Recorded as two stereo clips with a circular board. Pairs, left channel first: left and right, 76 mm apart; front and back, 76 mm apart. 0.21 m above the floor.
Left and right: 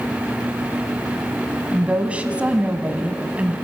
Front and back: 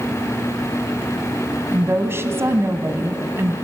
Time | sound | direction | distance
1.7 | a woman speaking | 150° right | 1.5 m